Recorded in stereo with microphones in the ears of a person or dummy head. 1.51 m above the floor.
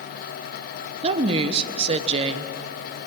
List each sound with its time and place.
1.0 s a woman speaking: 35° right (ahead or behind), 1.1 m